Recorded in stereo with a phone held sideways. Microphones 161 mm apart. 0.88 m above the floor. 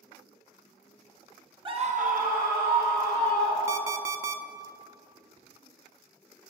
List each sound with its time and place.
1.6 s a scream: 30° right (ahead or behind), 0.7 m; by 4.0 s 70° right (ahead or behind), 4 m
3.7 s an alarm clock: 15° right (ahead or behind), 0.5 m